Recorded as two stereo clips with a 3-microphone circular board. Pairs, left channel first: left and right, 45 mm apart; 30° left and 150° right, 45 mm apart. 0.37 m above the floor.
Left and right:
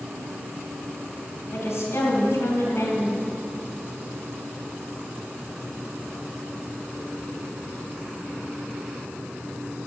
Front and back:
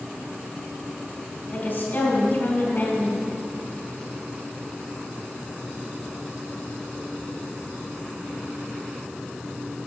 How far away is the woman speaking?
About 3.5 m.